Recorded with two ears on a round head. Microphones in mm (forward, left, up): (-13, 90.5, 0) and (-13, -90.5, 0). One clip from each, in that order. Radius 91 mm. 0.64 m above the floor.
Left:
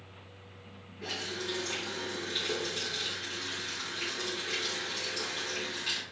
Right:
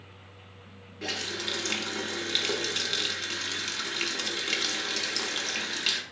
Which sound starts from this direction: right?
A running tap, at 1.0 s.